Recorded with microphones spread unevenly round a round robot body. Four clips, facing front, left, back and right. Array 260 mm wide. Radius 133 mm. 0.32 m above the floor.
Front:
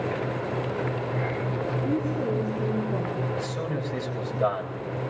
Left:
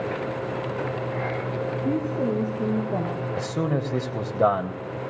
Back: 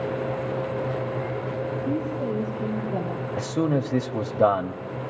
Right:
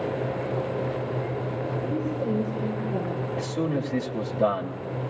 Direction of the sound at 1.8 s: 65° left.